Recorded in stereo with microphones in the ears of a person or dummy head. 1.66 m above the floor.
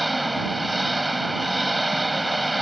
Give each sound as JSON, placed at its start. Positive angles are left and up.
{"t": 0.0, "sound": "an engine running", "side_deg": 0}